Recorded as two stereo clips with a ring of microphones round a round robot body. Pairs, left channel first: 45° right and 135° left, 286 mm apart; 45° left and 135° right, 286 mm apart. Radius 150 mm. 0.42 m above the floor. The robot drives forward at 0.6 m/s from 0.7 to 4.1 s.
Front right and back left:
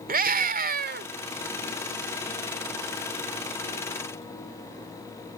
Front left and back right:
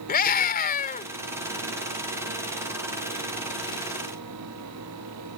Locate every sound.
0.1 s a scream: 90° left; by 1.1 s 100° left